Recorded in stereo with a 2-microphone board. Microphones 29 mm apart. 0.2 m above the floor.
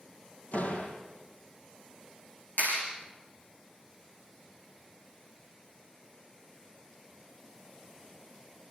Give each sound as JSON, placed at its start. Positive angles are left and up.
{"t": 0.5, "sound": "a door slam", "side_deg": 80, "distance_m": 3.5}
{"t": 2.6, "sound": "a clap", "side_deg": 85, "distance_m": 7.0}